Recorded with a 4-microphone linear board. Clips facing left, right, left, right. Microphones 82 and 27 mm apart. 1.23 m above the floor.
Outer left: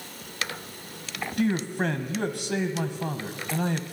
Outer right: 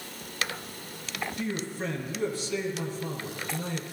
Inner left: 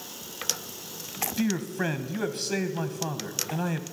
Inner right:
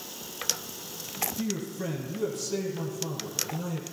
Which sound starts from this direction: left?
A man speaking, at 1.4 s.